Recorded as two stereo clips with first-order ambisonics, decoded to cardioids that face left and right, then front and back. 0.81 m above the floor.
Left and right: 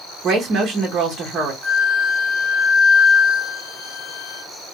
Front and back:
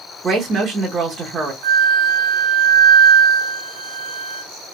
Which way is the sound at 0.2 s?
125° right.